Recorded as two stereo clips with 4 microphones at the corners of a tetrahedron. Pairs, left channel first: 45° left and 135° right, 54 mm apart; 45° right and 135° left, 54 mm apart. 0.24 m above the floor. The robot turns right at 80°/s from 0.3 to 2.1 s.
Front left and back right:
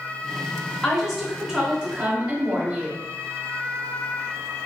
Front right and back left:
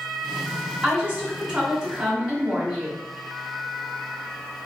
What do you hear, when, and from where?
0.8 s a woman speaking: 120° left, 0.9 m; by 3.0 s 140° right, 0.9 m